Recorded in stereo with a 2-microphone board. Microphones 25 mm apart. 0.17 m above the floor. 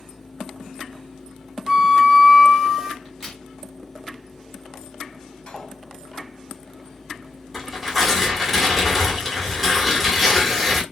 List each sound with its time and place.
1.7 s a flute: 15° right (ahead or behind), 1.3 m
3.0 s a crack: 10° left (ahead or behind), 1.4 m
5.5 s cutlery clinking: 30° left (ahead or behind), 2.0 m
7.5 s tearing paper: centre (ahead or behind), 1.3 m